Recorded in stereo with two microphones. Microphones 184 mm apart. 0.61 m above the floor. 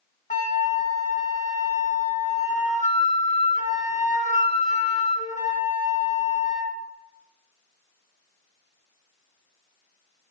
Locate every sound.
0.3 s a flute: 40° left (ahead or behind), 0.6 m